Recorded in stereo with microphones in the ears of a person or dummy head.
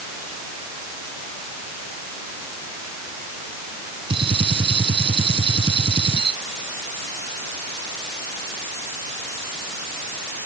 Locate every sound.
4.1 s a gunshot: 25° right (ahead or behind)